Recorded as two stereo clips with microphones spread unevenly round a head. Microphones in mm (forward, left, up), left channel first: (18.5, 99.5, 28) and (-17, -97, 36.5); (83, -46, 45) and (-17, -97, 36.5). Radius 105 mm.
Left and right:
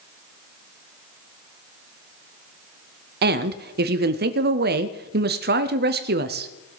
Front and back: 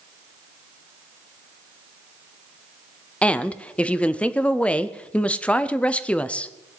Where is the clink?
No clink in this recording.